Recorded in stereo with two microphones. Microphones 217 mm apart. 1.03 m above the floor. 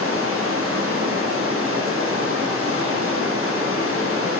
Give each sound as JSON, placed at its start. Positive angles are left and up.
{"t": 0.0, "sound": "running water", "side_deg": -75, "distance_m": 1.1}